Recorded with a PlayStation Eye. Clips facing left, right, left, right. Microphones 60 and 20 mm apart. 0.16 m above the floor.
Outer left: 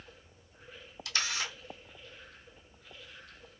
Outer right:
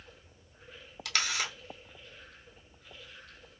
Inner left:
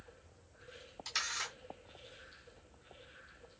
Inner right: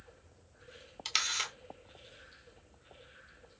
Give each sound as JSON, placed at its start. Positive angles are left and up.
{"t": 1.1, "sound": "a camera shutter", "side_deg": -75, "distance_m": 1.0}